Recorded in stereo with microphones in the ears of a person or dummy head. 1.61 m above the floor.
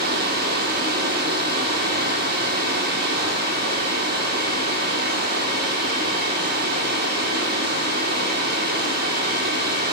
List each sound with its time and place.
0.0 s running water: 55° right (ahead or behind), 2.5 m